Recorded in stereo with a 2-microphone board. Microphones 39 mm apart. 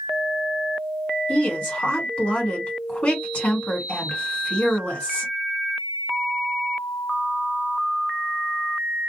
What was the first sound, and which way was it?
A woman speaking, 35° left (ahead or behind).